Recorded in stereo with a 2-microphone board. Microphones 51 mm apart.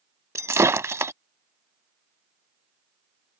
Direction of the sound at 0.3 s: 65° right (ahead or behind).